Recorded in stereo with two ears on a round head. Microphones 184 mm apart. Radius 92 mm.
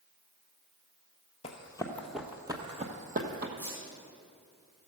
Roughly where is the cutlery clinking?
No cutlery clinking in this recording.